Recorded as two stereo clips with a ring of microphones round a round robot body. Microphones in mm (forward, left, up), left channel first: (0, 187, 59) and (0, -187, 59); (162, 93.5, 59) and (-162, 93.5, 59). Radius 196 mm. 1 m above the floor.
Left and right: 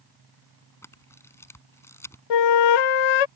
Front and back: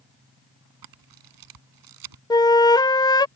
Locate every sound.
0.8 s a camera shutter: 175° left
2.3 s a flute: 80° left